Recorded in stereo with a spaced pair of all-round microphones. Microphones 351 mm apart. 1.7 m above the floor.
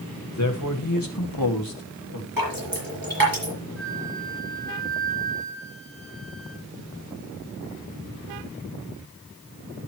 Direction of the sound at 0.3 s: 50° left (ahead or behind).